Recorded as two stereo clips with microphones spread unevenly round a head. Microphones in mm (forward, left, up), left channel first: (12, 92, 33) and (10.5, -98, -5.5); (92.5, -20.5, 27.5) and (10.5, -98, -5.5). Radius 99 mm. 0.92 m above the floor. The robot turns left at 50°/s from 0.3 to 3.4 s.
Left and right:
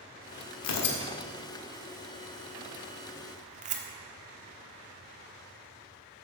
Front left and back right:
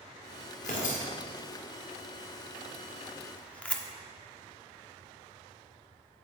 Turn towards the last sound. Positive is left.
turn(degrees=-40)